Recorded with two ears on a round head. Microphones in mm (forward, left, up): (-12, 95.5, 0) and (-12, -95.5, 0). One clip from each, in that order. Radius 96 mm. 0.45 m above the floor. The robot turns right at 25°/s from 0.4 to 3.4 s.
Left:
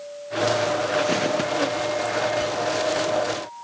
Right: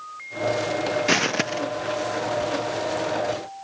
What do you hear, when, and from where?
1.1 s footsteps: 35° right (ahead or behind), 0.6 m; by 1.6 s 45° right (ahead or behind), 0.6 m